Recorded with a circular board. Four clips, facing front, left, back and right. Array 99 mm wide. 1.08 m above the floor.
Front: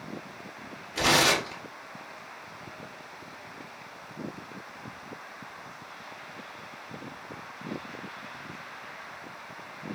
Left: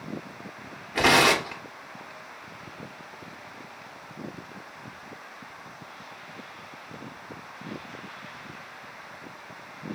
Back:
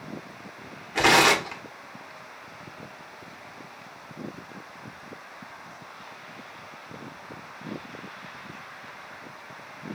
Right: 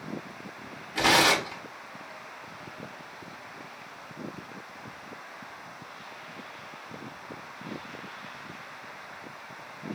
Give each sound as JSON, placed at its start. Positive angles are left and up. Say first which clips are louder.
{"t": 0.9, "sound": "tearing paper", "louder": "left 2 dB, back 5 dB", "azimuth_deg": 140, "distance_m": 1.2}